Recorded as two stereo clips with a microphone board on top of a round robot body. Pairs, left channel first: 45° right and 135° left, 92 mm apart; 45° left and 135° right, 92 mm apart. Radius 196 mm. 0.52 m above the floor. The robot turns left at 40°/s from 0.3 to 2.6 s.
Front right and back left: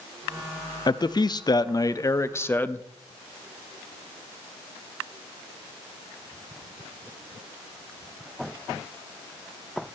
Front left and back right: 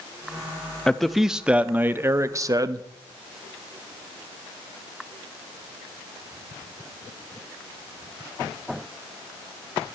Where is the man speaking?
35° right, 0.8 m; by 2.9 s 105° right, 0.8 m.